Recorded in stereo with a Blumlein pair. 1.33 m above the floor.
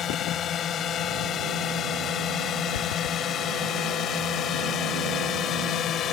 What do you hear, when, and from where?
0.0 s a drone: 25° left; by 6.1 s 30° left
2.7 s running footsteps: 55° left